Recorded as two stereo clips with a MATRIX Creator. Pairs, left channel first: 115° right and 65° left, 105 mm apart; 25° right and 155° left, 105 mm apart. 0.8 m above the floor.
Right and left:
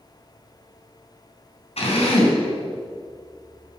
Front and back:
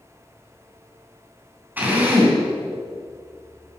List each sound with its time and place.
1.8 s a drill: 130° right, 3.5 m